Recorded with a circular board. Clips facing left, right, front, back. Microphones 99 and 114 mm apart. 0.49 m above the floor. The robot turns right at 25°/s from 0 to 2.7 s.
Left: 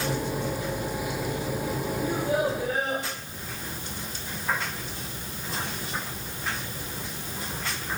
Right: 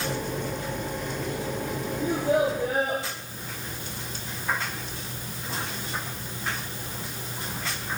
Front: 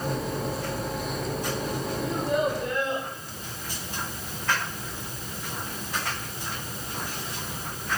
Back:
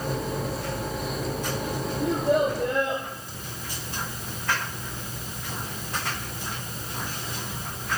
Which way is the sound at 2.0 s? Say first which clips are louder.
Right 3 dB, back 4 dB; 155° right.